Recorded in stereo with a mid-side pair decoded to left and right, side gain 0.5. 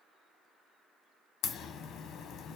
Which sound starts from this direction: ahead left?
A crack, at 1.4 s.